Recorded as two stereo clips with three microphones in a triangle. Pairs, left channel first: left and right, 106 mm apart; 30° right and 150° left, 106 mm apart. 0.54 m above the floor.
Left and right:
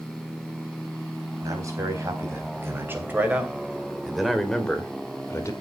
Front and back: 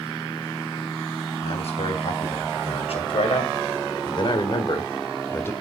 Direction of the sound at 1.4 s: 30° right.